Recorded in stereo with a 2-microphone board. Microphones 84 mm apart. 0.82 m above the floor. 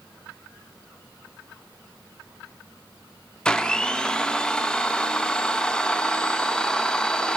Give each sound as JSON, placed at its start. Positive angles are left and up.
{"t": 3.5, "sound": "a blender", "side_deg": 10, "distance_m": 0.6}